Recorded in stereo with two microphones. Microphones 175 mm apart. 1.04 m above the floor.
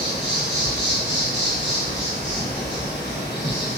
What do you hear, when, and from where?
0.0 s an insect: 80° left, 0.8 m